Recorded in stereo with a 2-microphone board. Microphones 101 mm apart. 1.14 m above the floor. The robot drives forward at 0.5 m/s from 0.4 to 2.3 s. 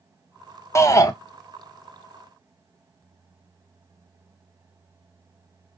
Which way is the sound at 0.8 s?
30° left (ahead or behind).